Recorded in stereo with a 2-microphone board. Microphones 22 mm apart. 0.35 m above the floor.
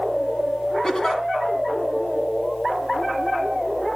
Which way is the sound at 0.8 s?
35° left (ahead or behind).